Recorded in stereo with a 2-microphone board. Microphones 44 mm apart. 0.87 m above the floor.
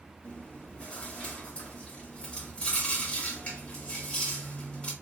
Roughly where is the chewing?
Left.